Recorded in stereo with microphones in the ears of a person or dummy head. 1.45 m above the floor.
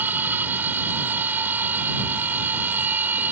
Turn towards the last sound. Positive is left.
turn(degrees=-5)  # may be behind; listen again after turning